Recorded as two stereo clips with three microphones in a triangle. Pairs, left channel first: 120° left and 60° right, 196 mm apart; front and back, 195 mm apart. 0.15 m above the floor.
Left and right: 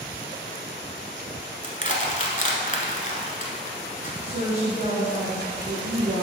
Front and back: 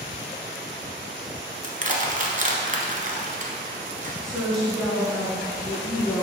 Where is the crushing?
150° left, 1.1 m.